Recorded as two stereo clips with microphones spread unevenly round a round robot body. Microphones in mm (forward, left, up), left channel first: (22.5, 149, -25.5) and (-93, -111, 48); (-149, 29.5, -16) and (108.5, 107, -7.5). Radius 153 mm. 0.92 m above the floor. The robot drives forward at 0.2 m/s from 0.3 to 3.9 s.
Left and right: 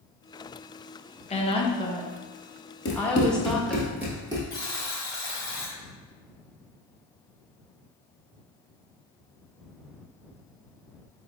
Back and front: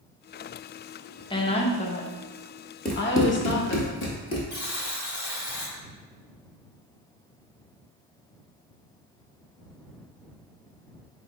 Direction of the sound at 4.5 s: 155° left.